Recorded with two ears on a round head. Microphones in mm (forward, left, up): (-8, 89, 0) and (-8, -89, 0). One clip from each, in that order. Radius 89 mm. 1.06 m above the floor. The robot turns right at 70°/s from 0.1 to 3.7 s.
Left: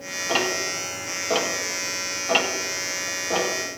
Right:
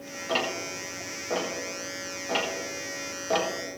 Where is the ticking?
5° left (ahead or behind), 1.6 m; by 3.5 s 50° right (ahead or behind), 1.6 m.